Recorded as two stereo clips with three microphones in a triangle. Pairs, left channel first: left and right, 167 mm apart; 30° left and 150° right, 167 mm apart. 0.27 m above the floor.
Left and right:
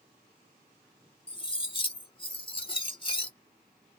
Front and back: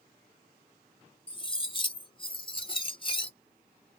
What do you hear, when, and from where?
1.3 s cutlery clinking: 60° left, 0.6 m